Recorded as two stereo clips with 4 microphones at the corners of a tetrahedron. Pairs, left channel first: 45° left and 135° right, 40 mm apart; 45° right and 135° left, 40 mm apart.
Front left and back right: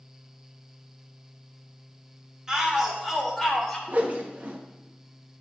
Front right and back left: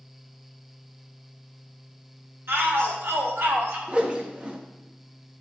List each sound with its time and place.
2.5 s a shout: 150° left, 3 m; by 3.8 s 125° left, 3.5 m
3.9 s a whoosh: 170° right, 1.3 m